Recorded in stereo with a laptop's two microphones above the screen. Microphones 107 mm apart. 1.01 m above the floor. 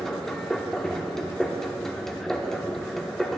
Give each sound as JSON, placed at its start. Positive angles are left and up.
{"t": 0.0, "sound": "a machine running", "side_deg": 5, "distance_m": 1.0}